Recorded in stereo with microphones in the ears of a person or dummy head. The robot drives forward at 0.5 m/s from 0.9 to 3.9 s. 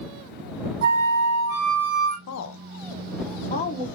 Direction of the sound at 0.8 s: 70° right (ahead or behind).